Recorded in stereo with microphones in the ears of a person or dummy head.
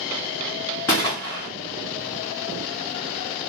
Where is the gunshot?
10° left (ahead or behind), 0.6 m.